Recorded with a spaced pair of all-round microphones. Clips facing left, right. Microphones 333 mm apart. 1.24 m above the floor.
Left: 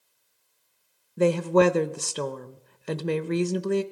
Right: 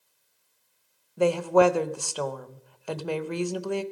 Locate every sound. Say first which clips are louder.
1.2 s a woman speaking: even; 25° left (ahead or behind), 0.8 m